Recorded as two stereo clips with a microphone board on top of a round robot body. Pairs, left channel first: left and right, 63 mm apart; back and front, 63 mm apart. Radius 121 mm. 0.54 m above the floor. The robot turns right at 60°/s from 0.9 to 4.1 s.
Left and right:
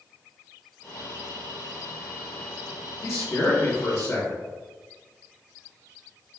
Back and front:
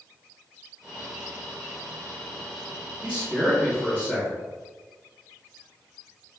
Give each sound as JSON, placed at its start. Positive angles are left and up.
{"t": 3.0, "sound": "a man speaking", "azimuth_deg": 60, "distance_m": 1.7}